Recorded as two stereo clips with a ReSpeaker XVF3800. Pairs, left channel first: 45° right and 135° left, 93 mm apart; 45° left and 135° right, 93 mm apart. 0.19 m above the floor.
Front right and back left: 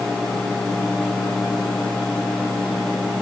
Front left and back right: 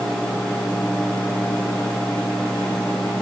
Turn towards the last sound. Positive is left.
No sound to turn to.